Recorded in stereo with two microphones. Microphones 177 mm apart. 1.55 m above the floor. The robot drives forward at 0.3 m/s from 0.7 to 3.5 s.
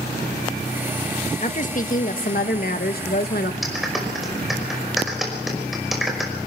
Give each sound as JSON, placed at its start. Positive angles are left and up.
{"t": 1.4, "sound": "a woman speaking", "side_deg": 45, "distance_m": 1.6}
{"t": 3.6, "sound": "a clap", "side_deg": 0, "distance_m": 5.0}